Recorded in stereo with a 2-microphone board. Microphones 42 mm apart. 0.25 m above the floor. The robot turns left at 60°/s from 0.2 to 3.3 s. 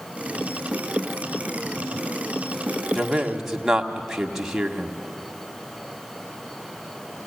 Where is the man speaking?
5° left (ahead or behind), 1.6 m; by 5.0 s 10° right (ahead or behind), 1.6 m.